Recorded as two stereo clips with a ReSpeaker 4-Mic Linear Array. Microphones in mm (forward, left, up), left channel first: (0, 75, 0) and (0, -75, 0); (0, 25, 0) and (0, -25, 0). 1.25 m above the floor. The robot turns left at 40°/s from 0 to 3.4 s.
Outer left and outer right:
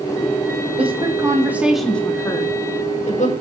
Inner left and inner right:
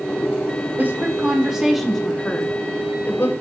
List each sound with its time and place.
0.8 s a woman speaking: 40° right (ahead or behind), 4.5 m; by 3.3 s 60° left (ahead or behind), 4.5 m